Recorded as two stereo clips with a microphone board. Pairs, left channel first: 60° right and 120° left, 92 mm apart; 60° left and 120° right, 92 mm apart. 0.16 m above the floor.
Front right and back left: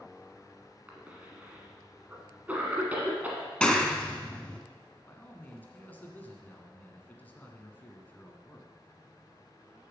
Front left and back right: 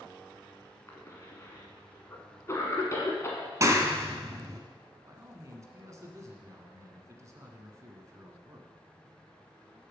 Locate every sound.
0.9 s a cough: 65° left, 1.4 m
3.6 s a clap: 135° right, 1.0 m
5.1 s a man speaking: 115° right, 1.4 m